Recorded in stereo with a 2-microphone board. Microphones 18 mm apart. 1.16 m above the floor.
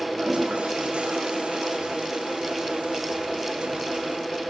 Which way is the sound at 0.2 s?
85° right.